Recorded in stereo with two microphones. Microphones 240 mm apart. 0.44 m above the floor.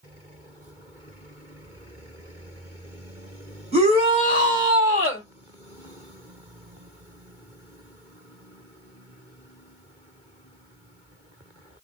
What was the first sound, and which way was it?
A shout, 25° right (ahead or behind).